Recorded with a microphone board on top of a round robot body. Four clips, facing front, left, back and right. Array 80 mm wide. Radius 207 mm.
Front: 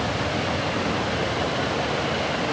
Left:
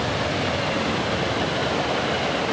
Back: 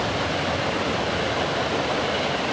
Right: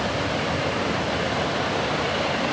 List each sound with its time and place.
Only background noise.